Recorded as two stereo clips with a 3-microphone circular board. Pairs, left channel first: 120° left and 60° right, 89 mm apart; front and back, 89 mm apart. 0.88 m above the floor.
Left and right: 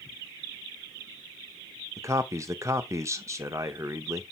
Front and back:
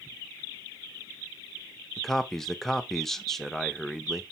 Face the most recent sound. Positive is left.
turn(degrees=-85)